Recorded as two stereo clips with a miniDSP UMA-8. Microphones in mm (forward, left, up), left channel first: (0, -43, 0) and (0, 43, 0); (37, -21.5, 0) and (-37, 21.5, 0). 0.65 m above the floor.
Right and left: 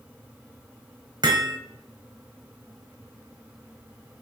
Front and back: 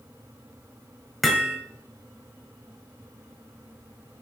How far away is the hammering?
About 1.4 m.